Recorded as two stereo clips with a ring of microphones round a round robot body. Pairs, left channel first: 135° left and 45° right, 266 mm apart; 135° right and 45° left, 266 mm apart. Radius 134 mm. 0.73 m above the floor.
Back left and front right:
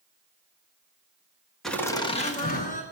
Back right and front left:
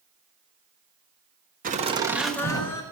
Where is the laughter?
50° left, 1.0 m; by 2.8 s 165° left, 1.2 m.